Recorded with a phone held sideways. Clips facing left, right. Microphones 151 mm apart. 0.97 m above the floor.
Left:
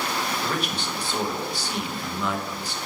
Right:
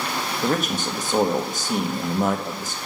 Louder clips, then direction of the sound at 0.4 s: Right 5 dB; 45° right (ahead or behind).